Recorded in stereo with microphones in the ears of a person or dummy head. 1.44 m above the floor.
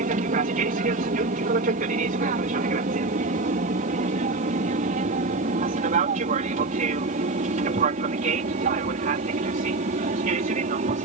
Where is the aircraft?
45° right (ahead or behind).